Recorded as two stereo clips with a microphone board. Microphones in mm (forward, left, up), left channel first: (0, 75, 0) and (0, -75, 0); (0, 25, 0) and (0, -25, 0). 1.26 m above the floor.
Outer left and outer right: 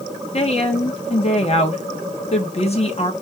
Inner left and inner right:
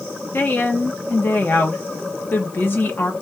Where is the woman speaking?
45° left (ahead or behind), 1.0 m.